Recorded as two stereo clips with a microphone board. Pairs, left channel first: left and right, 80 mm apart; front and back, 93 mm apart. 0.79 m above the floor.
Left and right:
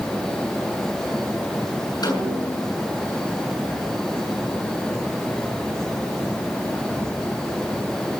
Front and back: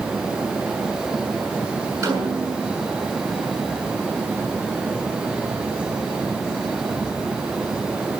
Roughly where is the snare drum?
Behind left.